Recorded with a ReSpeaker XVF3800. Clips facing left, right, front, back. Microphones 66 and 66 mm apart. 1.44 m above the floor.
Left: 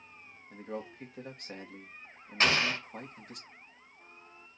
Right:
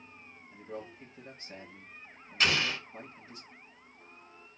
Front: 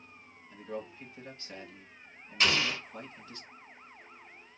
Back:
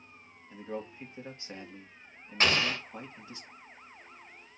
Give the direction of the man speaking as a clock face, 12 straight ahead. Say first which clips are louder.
Left 3 dB, back 1 dB; 8 o'clock.